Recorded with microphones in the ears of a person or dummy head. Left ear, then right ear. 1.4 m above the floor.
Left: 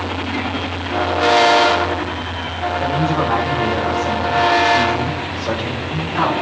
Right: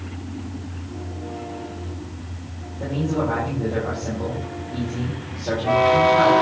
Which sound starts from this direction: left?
A man speaking, at 2.8 s.